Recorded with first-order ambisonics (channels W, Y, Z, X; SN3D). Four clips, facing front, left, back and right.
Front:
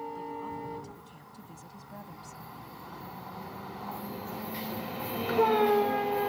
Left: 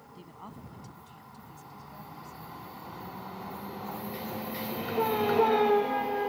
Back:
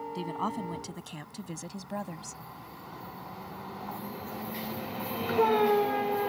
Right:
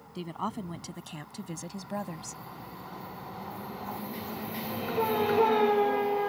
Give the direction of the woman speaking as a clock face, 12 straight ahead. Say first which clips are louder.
Right 13 dB, back 5 dB; 5 o'clock.